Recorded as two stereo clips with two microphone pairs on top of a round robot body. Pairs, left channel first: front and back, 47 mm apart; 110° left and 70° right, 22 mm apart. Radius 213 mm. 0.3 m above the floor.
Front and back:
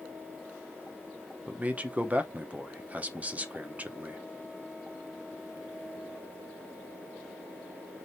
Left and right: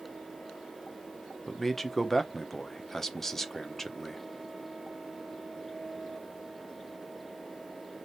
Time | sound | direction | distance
1.5 | a man speaking | 175° left | 1.1 m